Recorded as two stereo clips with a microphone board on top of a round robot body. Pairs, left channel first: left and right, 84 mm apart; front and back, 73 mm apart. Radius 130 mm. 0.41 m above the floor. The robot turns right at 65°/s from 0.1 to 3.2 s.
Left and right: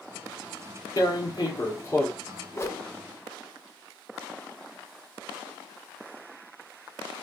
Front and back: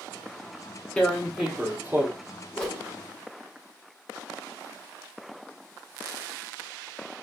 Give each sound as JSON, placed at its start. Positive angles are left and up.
{"t": 1.0, "sound": "tearing paper", "azimuth_deg": 75, "distance_m": 1.6}
{"t": 2.5, "sound": "a whoosh", "azimuth_deg": 65, "distance_m": 1.1}